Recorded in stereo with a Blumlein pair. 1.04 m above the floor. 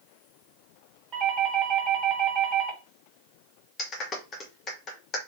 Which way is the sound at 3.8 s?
25° left.